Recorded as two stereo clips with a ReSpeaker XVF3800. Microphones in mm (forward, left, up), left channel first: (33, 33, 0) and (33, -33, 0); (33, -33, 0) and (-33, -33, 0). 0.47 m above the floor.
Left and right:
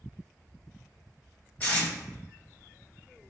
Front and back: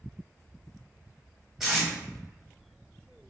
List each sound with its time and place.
1.6 s tape being pulled: 105° left, 0.9 m